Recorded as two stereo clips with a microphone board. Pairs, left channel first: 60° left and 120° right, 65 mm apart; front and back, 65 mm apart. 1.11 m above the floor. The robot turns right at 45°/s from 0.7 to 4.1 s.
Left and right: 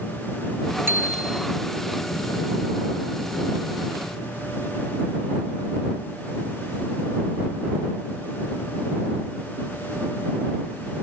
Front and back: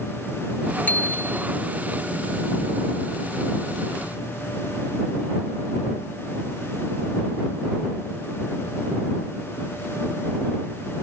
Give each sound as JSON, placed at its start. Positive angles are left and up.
{"t": 0.9, "sound": "a bicycle bell", "azimuth_deg": -65}